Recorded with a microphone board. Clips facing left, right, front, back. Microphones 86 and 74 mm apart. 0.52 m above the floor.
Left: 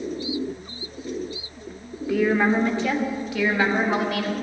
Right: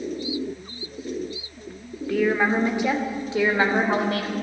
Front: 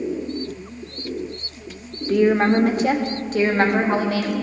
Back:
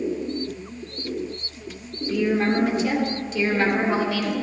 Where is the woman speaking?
5° left, 1.1 m; by 4.3 s 45° right, 1.9 m.